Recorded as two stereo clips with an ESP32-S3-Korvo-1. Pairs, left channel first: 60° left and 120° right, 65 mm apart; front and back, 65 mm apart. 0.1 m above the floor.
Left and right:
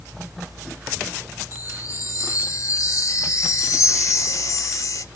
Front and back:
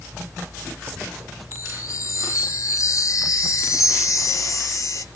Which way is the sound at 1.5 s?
30° left.